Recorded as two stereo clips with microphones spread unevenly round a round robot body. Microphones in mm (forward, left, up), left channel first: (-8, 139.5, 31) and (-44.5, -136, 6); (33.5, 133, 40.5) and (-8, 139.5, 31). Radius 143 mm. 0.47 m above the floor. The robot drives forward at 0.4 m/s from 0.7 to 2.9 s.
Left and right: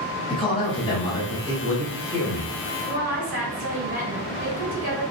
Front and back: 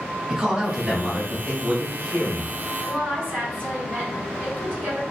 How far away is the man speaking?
About 0.8 m.